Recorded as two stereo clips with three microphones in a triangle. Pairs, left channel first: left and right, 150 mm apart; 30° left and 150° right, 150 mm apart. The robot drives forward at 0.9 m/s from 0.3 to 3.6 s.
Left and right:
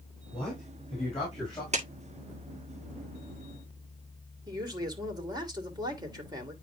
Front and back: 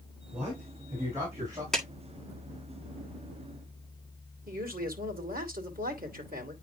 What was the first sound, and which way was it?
A man speaking, 130° left.